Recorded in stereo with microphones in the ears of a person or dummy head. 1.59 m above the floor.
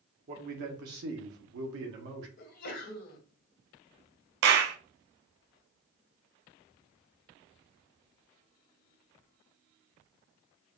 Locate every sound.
0.3 s a man speaking: 40° right (ahead or behind), 1.2 m; by 2.3 s 65° right (ahead or behind), 1.1 m
2.4 s a sneeze: 60° left (ahead or behind), 1.8 m
4.4 s a clap: 60° right (ahead or behind), 0.6 m